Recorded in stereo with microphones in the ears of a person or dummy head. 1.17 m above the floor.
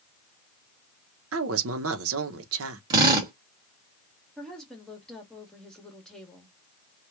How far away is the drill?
About 1.2 m.